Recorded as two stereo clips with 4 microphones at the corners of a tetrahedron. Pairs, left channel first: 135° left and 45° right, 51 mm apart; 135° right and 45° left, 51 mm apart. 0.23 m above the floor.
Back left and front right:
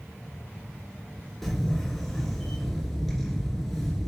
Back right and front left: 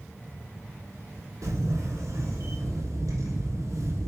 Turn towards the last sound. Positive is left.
turn(degrees=50)